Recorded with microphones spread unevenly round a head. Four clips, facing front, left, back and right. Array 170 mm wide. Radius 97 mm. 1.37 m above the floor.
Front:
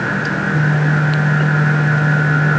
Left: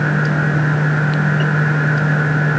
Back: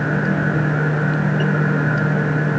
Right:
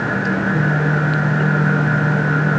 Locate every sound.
Only background noise.